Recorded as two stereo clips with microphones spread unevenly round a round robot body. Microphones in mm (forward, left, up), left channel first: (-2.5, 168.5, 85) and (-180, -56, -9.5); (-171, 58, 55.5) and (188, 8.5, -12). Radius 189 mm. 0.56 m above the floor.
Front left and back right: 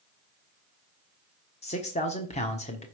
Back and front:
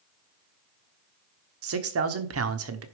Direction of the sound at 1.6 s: 30° right.